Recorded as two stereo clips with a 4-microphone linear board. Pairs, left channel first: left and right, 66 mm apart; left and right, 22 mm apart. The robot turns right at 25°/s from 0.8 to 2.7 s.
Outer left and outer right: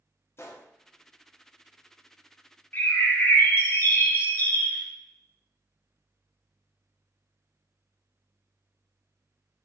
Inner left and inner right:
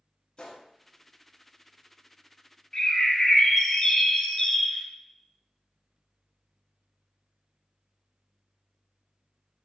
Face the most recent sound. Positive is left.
turn(degrees=30)  # may be behind; listen again after turning